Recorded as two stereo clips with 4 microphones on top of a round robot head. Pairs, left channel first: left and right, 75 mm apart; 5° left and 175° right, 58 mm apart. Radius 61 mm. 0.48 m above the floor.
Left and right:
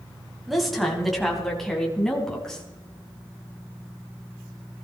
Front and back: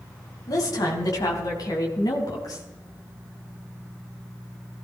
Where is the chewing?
No chewing in this recording.